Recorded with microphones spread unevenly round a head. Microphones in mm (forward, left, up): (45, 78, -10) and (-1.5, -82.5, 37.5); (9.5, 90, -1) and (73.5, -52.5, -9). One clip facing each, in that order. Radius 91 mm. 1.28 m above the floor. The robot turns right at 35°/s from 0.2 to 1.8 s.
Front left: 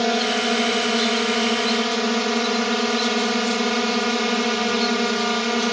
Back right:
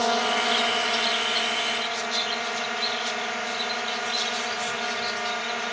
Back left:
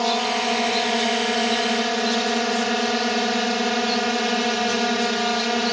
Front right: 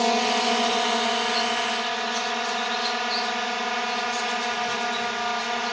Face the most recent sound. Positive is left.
turn(degrees=75)